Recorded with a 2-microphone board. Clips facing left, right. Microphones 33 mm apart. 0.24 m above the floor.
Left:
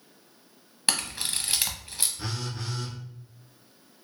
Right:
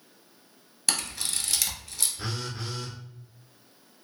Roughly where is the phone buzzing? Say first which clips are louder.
Even; centre.